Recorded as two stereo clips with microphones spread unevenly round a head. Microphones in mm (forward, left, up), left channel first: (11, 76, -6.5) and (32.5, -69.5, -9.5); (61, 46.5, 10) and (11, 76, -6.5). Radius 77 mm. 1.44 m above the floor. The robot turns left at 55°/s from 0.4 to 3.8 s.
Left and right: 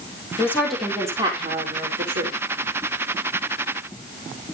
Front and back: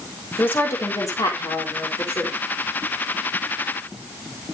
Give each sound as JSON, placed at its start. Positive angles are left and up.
{"t": 0.4, "sound": "a woman speaking", "azimuth_deg": 25, "distance_m": 4.0}